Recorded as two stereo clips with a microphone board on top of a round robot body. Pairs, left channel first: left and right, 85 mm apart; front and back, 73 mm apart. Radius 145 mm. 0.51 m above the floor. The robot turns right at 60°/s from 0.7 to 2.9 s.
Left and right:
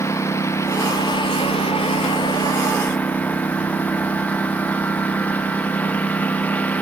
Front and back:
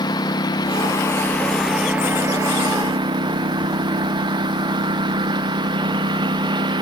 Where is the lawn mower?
30° left; by 6.8 s 165° left.